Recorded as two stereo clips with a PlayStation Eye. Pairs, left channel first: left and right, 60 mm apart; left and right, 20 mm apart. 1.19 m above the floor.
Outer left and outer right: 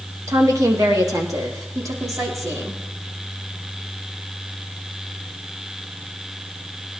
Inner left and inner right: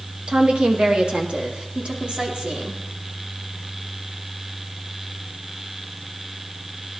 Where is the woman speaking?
65° right (ahead or behind), 1.7 m; by 2.8 s 75° right (ahead or behind), 3.5 m.